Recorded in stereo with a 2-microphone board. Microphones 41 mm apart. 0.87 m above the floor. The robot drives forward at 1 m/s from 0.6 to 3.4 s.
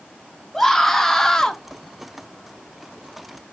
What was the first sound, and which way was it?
A scream, 10° left (ahead or behind).